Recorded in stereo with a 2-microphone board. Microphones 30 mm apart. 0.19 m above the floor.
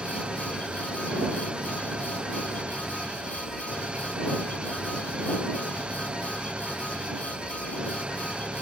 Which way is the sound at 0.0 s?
35° right (ahead or behind).